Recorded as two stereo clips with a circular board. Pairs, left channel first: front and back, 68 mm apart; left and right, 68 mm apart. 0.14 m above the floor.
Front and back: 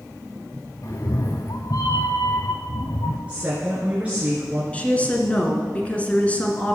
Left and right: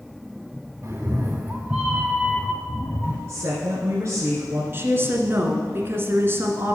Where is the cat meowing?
40° right, 1.5 m; by 3.2 s 20° left, 1.5 m.